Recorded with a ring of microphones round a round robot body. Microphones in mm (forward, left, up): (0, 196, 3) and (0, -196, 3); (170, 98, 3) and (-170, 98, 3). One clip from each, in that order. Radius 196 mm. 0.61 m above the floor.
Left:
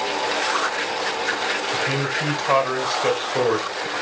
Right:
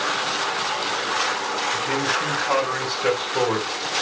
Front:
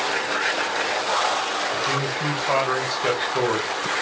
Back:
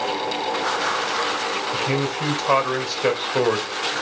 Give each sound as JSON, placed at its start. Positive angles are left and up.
{"t": 1.7, "sound": "a man speaking", "azimuth_deg": 145, "distance_m": 3.0}